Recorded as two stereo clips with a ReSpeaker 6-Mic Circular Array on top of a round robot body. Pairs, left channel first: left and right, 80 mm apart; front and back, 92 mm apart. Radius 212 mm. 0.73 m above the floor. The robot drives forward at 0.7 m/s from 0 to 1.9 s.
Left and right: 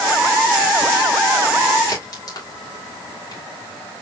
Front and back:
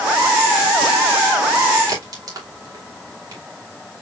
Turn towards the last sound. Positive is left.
turn(degrees=135)